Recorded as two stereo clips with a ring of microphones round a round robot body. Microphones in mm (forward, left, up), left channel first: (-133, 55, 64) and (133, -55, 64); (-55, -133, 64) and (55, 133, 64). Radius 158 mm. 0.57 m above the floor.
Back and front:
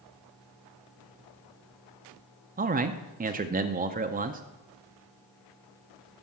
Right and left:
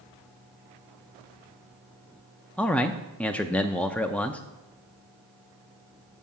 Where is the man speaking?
30° right, 0.6 m.